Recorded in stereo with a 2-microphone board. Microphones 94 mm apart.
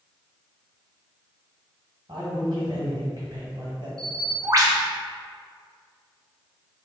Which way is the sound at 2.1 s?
45° right (ahead or behind).